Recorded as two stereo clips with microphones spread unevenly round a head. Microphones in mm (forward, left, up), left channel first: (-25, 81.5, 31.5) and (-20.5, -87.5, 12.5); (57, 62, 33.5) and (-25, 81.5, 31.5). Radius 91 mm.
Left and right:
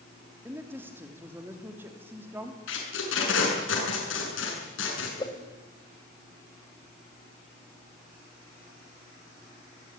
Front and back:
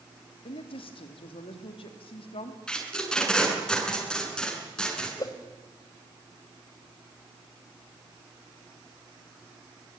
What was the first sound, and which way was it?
A woman speaking, 10° right.